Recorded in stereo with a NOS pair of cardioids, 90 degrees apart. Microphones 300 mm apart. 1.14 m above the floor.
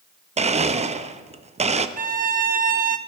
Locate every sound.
0.4 s a blender: 20° right, 0.9 m
2.0 s a violin: 30° right, 1.2 m